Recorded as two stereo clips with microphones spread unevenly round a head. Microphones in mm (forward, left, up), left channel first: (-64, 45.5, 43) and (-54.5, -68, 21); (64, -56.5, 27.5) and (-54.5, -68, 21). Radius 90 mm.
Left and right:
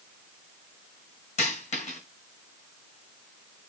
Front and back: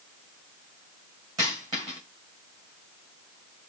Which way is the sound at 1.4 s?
115° left.